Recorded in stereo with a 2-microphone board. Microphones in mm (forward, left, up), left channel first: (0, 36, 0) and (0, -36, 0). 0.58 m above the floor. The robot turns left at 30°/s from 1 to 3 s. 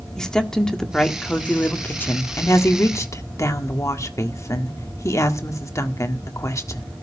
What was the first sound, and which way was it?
A woman speaking, 170° left.